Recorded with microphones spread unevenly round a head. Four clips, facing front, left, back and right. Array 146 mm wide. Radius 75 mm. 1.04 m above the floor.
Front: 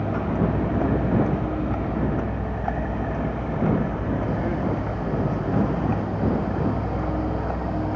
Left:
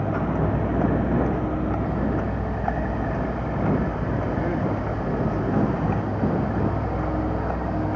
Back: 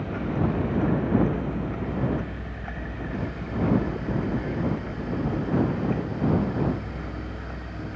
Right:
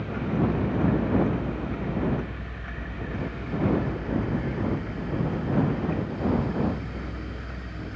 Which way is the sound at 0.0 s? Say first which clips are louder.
Left 3 dB, front 3 dB; 60° left.